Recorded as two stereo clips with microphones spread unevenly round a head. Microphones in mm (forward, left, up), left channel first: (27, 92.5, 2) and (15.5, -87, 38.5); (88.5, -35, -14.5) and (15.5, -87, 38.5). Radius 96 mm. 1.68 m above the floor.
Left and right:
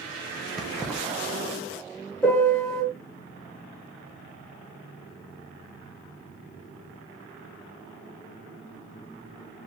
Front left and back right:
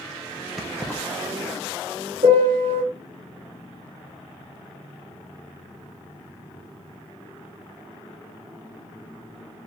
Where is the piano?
175° left, 1.8 m.